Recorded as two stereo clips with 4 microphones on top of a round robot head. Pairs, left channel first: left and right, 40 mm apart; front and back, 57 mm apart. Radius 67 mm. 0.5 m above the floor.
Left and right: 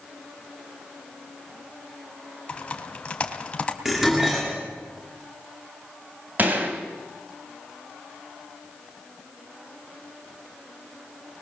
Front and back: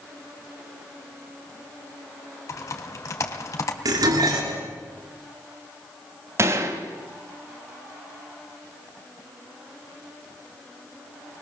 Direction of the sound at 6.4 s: 140° right.